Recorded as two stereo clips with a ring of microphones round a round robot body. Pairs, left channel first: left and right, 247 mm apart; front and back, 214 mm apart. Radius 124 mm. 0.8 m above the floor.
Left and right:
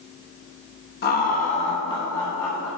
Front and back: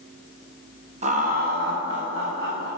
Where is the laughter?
130° left, 0.9 m; by 2.7 s 170° left, 1.5 m.